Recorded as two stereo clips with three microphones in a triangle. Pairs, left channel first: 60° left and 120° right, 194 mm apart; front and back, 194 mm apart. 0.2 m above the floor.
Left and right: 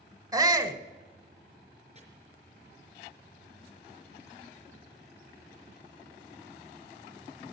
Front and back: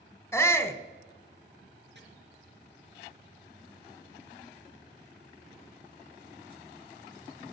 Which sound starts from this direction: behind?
Chopping, at 1.9 s.